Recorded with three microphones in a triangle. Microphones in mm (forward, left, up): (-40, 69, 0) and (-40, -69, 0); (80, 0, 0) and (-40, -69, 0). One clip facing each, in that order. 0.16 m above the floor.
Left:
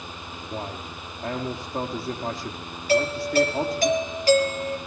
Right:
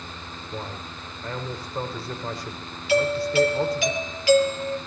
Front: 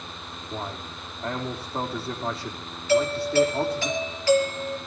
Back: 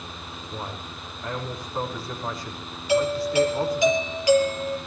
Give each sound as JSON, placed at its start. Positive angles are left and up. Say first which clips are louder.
{"t": 0.5, "sound": "a man speaking", "louder": "left 2 dB, front 2 dB", "azimuth_deg": 90, "distance_m": 5.5}
{"t": 2.9, "sound": "a doorbell", "louder": "right 1 dB, even", "azimuth_deg": 135, "distance_m": 4.5}